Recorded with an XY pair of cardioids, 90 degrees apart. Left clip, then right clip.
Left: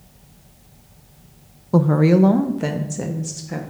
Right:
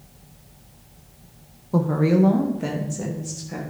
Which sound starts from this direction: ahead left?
A woman speaking, at 1.7 s.